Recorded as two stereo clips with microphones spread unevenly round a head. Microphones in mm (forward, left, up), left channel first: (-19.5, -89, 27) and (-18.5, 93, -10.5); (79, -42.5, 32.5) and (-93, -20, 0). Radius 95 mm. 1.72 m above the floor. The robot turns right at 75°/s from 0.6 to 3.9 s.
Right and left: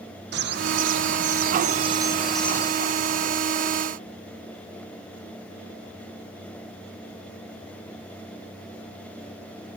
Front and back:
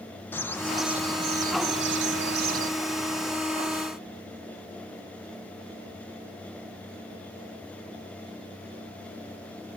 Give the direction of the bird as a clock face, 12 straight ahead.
10 o'clock.